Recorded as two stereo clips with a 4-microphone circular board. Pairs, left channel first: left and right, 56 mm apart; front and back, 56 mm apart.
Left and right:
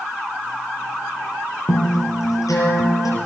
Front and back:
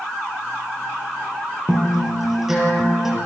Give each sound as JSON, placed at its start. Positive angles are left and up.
{"t": 1.7, "sound": "a guitar", "azimuth_deg": 95, "distance_m": 7.0}